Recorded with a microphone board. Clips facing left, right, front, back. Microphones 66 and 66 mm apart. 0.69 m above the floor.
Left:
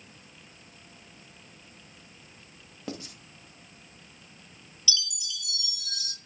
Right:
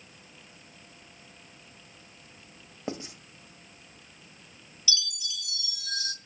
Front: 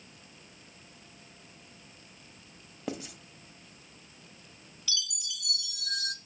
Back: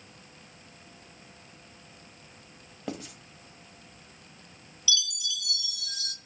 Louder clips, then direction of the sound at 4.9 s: Right 1 dB, back 7 dB; 35° right.